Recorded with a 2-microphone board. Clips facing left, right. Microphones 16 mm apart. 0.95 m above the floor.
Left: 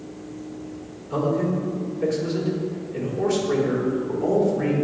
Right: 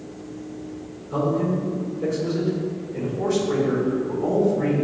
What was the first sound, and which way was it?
A man speaking, 25° left (ahead or behind).